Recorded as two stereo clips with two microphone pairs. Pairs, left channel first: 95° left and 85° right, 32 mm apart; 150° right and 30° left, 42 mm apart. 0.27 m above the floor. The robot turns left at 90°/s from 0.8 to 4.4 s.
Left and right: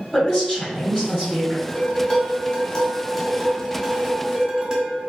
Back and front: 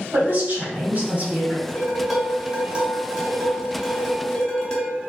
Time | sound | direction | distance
0.1 | a woman speaking | 5° left | 1.5 m
1.7 | dishes clattering | 150° left | 0.7 m